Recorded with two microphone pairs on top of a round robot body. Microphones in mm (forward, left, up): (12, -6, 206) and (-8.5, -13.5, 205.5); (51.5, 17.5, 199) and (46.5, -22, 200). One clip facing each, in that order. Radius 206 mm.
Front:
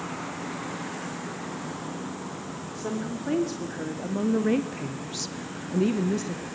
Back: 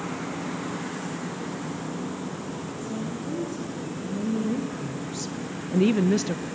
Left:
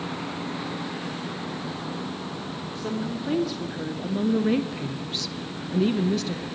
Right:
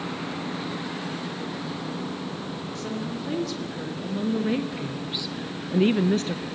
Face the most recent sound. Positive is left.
turn(degrees=-140)